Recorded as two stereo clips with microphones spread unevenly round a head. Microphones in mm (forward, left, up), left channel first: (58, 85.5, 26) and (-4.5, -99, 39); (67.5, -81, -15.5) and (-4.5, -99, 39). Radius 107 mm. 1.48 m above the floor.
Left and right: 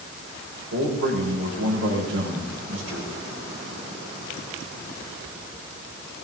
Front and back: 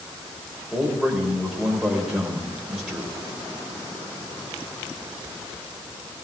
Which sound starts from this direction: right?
A man speaking, at 0.7 s.